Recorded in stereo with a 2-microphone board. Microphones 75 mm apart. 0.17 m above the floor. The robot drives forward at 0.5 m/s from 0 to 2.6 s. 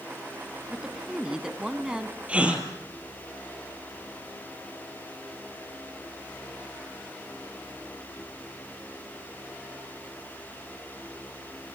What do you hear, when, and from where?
0.7 s a woman speaking: 10° right (ahead or behind), 1.8 m
2.3 s a gasp: 15° right (ahead or behind), 3 m